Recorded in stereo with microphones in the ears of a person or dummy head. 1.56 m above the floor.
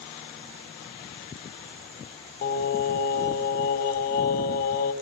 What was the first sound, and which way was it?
Singing, 50° left (ahead or behind).